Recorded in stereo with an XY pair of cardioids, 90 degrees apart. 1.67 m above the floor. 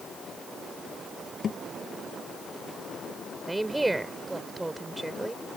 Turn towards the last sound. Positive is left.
turn(degrees=-15)